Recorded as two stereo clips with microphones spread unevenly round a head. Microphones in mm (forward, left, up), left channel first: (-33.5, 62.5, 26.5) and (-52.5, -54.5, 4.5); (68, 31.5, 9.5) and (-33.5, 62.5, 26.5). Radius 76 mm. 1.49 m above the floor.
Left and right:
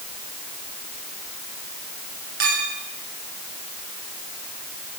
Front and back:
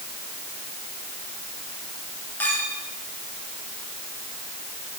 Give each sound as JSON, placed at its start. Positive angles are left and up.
{"t": 2.4, "sound": "a clink", "azimuth_deg": -95, "distance_m": 6.0}